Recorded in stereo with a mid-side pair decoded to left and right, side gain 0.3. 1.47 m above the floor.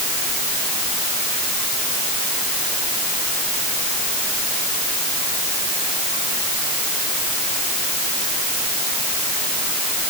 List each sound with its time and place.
Only background noise.